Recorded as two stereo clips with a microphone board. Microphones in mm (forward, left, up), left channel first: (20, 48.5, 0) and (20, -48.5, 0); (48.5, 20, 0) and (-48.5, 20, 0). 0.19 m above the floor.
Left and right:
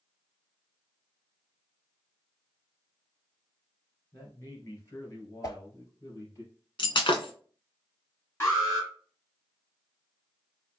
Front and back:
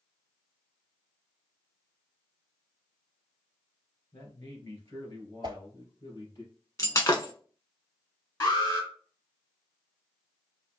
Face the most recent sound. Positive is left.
turn(degrees=35)